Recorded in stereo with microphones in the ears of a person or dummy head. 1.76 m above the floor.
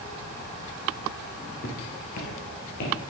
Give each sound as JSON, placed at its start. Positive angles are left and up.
{"t": 1.6, "sound": "footsteps", "side_deg": 30, "distance_m": 1.9}